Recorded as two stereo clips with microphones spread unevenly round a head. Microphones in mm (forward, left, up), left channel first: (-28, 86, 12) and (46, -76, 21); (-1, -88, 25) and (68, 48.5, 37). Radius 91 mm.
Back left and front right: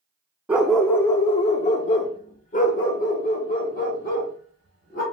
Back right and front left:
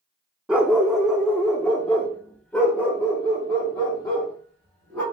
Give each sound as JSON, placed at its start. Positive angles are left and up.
{"t": 0.5, "sound": "a dog barking", "azimuth_deg": -5, "distance_m": 0.5}